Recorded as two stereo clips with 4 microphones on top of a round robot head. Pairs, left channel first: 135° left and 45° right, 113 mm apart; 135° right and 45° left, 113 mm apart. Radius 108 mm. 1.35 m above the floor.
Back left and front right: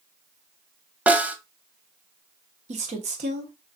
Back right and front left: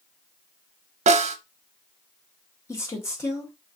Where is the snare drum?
35° left, 0.6 m.